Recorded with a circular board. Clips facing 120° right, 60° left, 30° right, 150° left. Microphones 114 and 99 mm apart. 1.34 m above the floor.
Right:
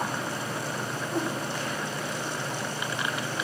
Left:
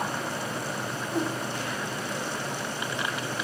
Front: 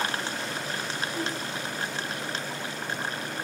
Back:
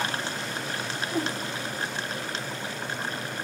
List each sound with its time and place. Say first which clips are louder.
1.1 s a whoosh: left 1 dB, back 5 dB; 150° left, 1.9 m